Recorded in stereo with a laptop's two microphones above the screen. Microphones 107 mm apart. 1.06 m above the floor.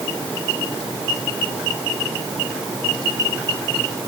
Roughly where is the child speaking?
I don't hear a child speaking.